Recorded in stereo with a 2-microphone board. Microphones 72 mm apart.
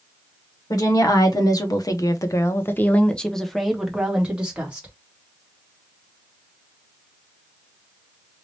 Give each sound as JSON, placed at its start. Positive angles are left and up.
{"t": 0.7, "sound": "a woman speaking", "side_deg": 55, "distance_m": 1.2}